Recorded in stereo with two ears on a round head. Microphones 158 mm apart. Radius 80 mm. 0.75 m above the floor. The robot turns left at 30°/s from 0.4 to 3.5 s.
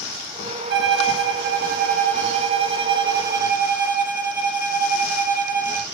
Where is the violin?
80° right, 0.8 m; by 5.8 s 165° right, 0.8 m.